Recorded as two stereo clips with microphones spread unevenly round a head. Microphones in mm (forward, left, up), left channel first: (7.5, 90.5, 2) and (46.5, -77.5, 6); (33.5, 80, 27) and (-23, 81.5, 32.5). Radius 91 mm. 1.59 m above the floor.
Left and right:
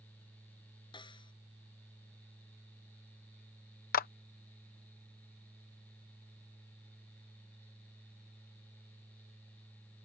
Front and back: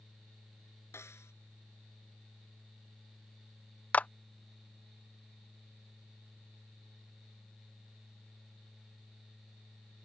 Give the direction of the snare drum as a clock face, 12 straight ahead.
11 o'clock.